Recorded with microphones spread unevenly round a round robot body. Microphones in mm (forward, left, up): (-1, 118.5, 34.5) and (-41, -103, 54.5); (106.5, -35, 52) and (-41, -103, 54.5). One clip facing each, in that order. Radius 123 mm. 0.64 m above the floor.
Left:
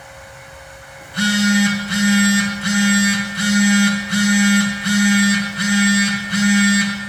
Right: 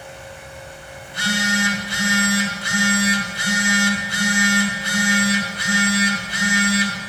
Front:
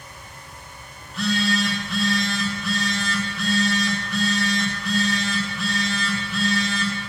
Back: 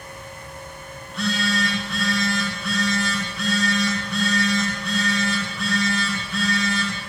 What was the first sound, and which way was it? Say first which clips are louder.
A phone buzzing: left 8 dB, front 2 dB; 110° left.